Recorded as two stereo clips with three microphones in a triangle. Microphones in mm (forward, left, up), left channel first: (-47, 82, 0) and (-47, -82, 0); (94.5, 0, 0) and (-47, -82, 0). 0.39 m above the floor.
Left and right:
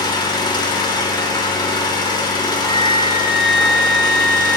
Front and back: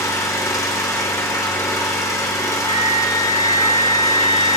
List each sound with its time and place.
0.0 s an engine running: 75° left, 0.9 m
2.6 s a flute: straight behind, 3.5 m